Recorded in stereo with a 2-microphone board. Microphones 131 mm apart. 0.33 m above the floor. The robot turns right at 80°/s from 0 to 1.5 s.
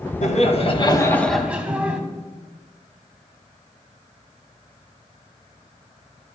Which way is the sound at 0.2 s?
85° left.